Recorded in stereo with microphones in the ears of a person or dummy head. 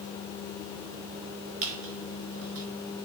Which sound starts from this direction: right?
A squeak, at 1.6 s.